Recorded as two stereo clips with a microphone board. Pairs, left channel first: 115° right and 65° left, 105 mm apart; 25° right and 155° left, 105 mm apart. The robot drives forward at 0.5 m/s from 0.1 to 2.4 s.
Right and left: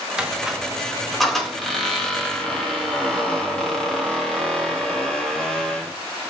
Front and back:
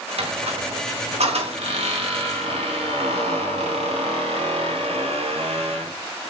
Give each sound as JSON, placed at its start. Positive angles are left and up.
{"t": 0.2, "sound": "a squeak", "azimuth_deg": 150, "distance_m": 1.2}